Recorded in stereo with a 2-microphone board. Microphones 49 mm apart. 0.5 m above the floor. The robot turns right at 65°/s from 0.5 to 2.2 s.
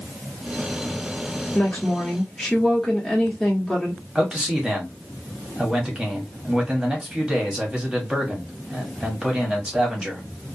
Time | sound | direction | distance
1.6 | a woman speaking | 130° left | 1.1 m
4.2 | a man speaking | 15° right (ahead or behind) | 1.0 m